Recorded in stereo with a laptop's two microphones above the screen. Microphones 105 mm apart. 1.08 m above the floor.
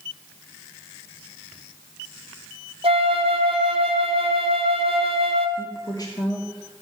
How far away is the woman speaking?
About 1.3 m.